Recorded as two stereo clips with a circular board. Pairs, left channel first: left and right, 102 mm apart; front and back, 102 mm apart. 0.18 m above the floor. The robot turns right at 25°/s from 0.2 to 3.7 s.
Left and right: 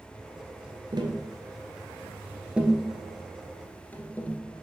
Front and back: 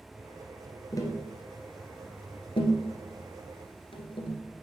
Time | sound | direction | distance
0.9 | tapping | 50° right | 1.3 m